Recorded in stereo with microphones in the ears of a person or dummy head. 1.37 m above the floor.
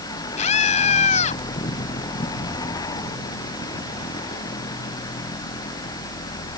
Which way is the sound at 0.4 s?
40° left (ahead or behind).